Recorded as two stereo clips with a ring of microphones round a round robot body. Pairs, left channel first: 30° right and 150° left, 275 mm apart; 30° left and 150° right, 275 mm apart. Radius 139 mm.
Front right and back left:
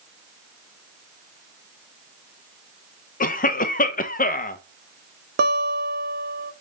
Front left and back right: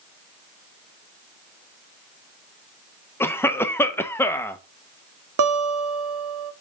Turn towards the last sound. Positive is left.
turn(degrees=-160)